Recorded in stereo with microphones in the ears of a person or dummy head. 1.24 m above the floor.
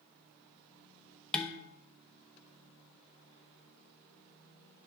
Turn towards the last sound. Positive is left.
turn(degrees=5)  # may be behind; listen again after turning